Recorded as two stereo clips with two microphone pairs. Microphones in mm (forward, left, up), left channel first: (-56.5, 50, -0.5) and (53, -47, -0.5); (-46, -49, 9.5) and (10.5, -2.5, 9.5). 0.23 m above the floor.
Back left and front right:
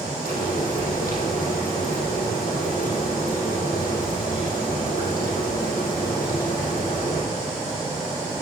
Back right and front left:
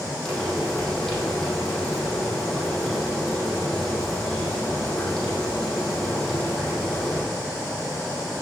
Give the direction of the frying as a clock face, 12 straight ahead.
7 o'clock.